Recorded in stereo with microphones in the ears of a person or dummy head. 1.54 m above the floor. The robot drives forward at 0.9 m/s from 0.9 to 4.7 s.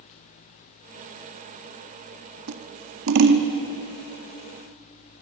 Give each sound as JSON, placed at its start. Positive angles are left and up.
{"t": 2.5, "sound": "scissors", "side_deg": -65, "distance_m": 1.6}